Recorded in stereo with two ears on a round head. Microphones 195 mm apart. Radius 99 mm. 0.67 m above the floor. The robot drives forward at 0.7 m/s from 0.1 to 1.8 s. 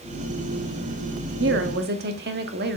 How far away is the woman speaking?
About 0.8 m.